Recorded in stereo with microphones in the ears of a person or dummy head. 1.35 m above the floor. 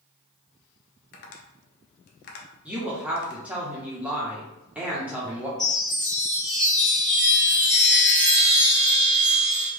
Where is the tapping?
45° left (ahead or behind), 0.6 m.